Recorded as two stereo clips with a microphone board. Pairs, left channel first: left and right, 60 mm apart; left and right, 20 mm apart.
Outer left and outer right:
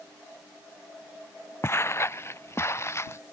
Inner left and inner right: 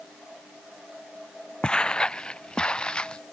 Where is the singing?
No singing in this recording.